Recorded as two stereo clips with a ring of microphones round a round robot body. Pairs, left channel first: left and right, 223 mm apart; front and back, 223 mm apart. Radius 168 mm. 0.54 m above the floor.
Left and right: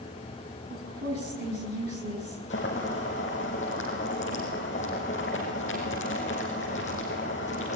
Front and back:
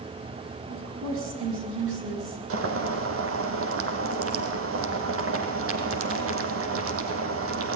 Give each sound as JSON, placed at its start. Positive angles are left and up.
{"t": 0.7, "sound": "a woman speaking", "azimuth_deg": -140, "distance_m": 7.0}
{"t": 2.5, "sound": "boiling", "azimuth_deg": 160, "distance_m": 4.0}